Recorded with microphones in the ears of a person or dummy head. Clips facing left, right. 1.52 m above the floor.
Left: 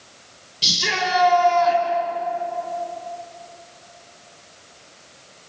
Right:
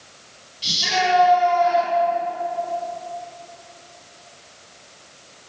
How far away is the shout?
About 5.5 m.